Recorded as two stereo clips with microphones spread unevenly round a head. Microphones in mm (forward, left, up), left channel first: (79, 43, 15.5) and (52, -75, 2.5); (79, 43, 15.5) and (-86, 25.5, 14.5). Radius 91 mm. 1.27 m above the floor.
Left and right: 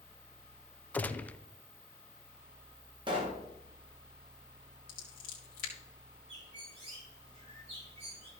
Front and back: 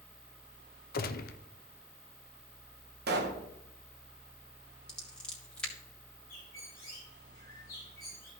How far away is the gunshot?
About 0.6 m.